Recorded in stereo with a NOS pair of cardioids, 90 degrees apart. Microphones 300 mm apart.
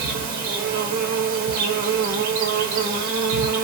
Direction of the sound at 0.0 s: 70° right.